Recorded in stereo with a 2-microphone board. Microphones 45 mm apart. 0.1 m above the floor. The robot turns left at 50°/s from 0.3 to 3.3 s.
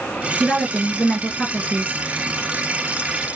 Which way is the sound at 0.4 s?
175° left.